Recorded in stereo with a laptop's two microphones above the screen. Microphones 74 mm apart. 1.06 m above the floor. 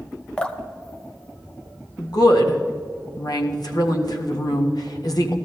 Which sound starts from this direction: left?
A woman speaking, at 2.0 s.